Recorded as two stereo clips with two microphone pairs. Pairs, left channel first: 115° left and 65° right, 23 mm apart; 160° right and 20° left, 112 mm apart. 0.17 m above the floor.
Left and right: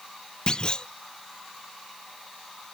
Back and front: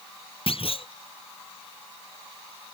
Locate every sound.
0.5 s a clunk: 165° left